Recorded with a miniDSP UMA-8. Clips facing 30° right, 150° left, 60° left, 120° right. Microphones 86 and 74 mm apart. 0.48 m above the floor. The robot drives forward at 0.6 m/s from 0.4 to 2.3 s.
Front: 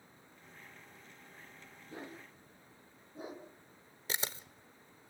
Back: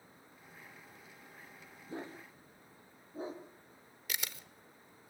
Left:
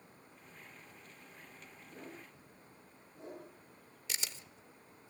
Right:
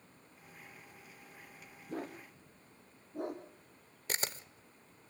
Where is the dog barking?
150° right, 4.5 m.